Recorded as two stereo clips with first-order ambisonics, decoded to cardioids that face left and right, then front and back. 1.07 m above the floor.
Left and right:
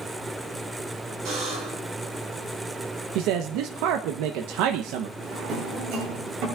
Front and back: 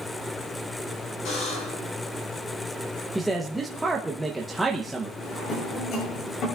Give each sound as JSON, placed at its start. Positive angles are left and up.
{"t": 1.2, "sound": "a buzzer", "azimuth_deg": -40, "distance_m": 9.0}
{"t": 3.1, "sound": "a man speaking", "azimuth_deg": -95, "distance_m": 0.8}
{"t": 5.2, "sound": "a drawer", "azimuth_deg": -50, "distance_m": 9.0}